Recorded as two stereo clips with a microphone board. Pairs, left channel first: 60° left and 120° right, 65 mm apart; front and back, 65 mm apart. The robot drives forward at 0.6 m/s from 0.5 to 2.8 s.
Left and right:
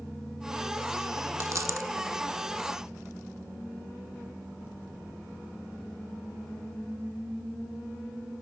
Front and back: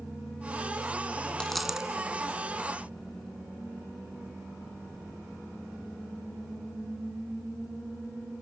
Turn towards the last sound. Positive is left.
turn(degrees=-140)